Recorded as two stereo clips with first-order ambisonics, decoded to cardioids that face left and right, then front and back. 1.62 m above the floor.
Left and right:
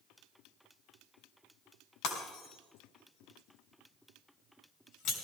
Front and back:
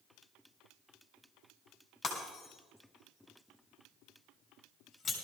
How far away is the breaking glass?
About 4 m.